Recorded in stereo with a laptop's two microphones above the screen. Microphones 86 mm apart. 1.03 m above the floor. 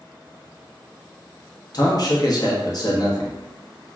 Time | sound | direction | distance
1.7 | a man speaking | 50° left (ahead or behind) | 0.8 m